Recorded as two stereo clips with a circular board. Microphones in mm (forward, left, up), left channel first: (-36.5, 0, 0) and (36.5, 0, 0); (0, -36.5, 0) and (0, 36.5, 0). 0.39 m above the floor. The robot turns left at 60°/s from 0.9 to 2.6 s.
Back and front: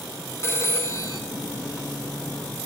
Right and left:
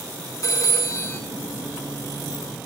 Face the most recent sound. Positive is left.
turn(degrees=125)